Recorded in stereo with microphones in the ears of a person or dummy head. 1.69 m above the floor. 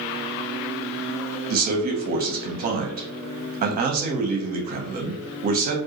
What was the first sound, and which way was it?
A man speaking, 45° right (ahead or behind).